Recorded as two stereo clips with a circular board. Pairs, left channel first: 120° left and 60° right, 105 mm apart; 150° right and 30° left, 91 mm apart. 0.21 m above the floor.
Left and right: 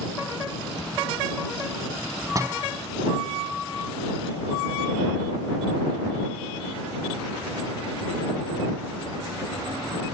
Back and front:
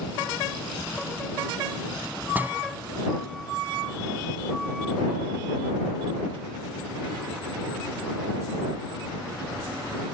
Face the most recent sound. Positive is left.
turn(degrees=-25)